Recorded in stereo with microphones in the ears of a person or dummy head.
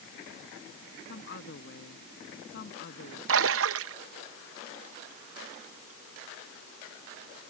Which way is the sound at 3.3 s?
70° right (ahead or behind).